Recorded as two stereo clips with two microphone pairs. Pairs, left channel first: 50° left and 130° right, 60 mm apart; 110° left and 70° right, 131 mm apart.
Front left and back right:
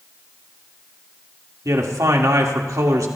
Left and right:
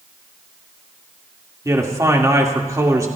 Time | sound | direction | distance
1.6 | a man speaking | 135° right | 2 m